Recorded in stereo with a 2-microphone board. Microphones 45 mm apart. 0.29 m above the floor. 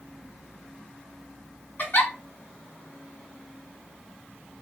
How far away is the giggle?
About 1.3 m.